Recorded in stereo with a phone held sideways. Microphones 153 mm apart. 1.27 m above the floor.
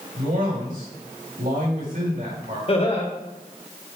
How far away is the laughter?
About 1.8 m.